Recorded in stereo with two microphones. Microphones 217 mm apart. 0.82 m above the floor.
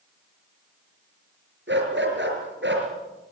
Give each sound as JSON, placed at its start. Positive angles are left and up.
{"t": 1.7, "sound": "a dog barking", "side_deg": -60, "distance_m": 4.5}